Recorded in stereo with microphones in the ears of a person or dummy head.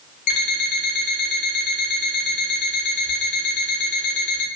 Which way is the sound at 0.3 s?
45° left (ahead or behind).